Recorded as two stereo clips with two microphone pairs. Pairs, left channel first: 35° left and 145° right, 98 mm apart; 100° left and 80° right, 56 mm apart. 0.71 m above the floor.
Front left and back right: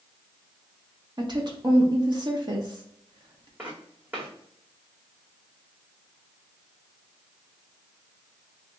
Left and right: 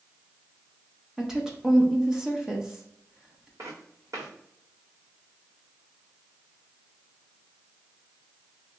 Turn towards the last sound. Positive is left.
turn(degrees=-70)